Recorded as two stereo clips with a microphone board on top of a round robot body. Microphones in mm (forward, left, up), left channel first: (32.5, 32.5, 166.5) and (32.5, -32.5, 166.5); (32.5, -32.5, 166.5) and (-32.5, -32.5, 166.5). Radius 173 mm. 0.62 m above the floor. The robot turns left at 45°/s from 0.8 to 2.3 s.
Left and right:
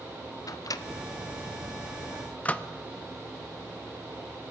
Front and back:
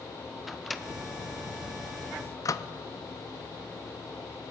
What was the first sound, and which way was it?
A microwave, 90° left.